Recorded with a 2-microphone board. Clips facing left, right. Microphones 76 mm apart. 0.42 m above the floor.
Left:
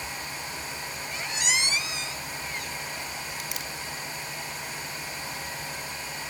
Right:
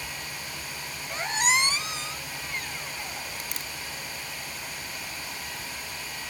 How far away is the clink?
I don't hear a clink.